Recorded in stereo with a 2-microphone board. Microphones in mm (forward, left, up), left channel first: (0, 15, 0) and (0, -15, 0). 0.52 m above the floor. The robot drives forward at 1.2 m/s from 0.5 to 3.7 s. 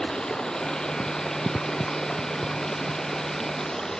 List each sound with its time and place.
0.0 s running water: 30° left (ahead or behind); by 4.0 s 20° left (ahead or behind)